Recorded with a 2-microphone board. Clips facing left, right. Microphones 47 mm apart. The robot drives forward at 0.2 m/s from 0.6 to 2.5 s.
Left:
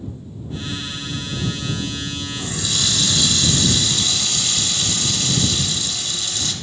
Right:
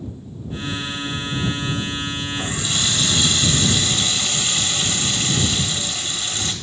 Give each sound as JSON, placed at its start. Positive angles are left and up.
{"t": 2.4, "sound": "a running tap", "side_deg": -35, "distance_m": 0.7}